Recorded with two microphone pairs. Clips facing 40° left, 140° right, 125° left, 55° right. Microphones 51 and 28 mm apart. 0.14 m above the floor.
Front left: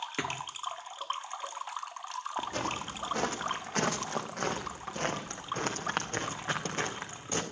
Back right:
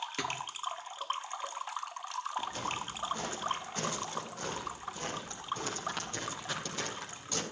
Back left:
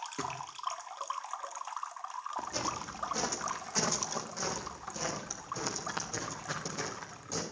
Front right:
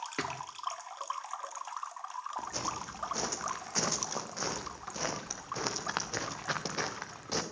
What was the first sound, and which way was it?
A thud, 25° right.